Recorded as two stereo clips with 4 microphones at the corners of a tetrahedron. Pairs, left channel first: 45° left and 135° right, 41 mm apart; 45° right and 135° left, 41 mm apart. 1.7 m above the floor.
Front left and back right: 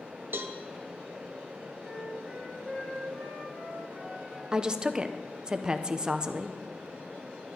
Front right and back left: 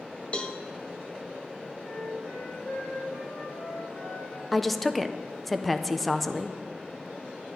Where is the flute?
40° right, 4.5 m.